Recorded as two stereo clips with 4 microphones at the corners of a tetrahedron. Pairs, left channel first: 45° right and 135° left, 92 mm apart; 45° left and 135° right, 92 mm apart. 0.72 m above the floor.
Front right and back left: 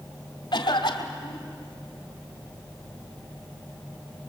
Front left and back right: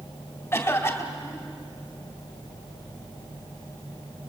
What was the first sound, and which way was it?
A cough, 15° right.